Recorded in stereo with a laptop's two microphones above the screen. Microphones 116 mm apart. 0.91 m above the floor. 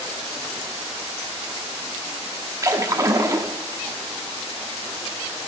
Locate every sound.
2.6 s a splash: 30° right (ahead or behind), 1.2 m